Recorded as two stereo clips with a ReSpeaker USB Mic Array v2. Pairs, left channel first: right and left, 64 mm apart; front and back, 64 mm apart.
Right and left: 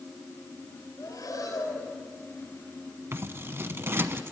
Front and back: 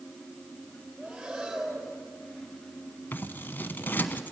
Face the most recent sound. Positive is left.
turn(degrees=50)